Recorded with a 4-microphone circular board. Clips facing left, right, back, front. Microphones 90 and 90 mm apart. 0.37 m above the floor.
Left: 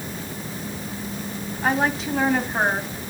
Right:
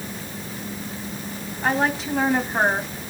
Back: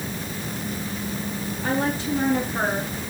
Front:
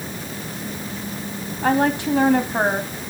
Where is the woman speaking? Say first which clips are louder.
Even, front 6 dB; 5° left, 3 m; by 3.1 s 15° right, 3 m.